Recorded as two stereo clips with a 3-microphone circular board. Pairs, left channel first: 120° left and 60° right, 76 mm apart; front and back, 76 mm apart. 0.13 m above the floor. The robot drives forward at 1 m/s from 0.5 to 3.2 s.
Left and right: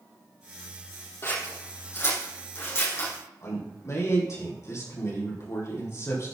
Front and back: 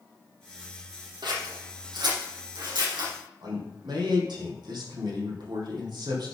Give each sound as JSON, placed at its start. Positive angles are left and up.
{"t": 1.2, "sound": "scissors", "azimuth_deg": 175, "distance_m": 3.5}
{"t": 3.4, "sound": "a man speaking", "azimuth_deg": 170, "distance_m": 4.5}